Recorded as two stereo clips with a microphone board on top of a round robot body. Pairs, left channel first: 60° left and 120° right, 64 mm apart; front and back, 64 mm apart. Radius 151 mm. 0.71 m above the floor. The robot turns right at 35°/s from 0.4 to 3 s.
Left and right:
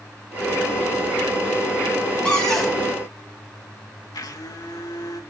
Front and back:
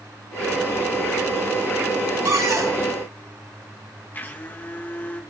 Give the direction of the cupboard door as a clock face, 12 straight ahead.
8 o'clock.